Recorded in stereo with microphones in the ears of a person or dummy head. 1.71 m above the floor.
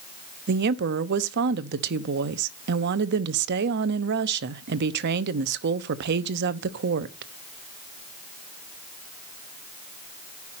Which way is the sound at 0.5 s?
60° right (ahead or behind).